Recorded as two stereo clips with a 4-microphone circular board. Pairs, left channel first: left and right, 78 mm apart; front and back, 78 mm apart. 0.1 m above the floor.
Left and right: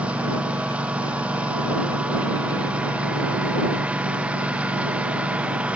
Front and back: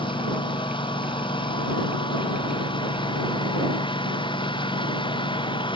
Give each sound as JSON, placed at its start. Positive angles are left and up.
{"t": 0.0, "sound": "a lawn mower", "azimuth_deg": -15}